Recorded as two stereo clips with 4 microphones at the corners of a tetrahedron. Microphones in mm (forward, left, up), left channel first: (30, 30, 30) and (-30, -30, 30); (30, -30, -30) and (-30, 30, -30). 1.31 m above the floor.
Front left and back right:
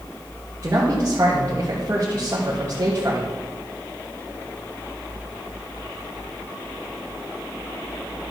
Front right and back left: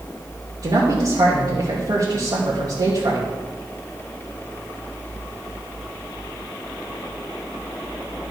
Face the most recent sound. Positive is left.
turn(degrees=165)